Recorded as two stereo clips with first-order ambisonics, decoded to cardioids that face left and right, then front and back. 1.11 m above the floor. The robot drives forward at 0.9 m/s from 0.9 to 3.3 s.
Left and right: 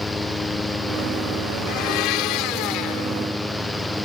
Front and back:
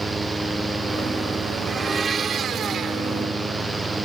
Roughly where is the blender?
Left.